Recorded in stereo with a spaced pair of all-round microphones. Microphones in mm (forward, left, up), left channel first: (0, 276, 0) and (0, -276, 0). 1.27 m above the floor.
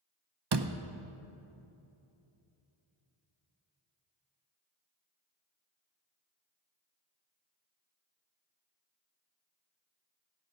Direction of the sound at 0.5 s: 50° right (ahead or behind).